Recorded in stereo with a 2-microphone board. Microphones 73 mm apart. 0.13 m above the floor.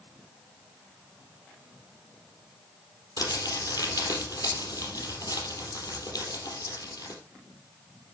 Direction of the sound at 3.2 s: 60° left (ahead or behind).